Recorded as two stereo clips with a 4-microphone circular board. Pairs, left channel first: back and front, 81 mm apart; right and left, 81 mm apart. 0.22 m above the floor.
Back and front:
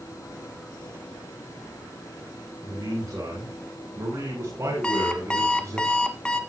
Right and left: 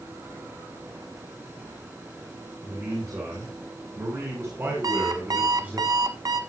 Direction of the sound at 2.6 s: 50° left.